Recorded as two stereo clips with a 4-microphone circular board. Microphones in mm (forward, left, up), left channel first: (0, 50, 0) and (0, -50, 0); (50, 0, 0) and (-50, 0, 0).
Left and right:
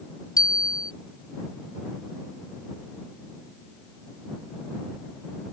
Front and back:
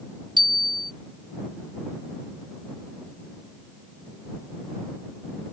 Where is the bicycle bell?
140° left.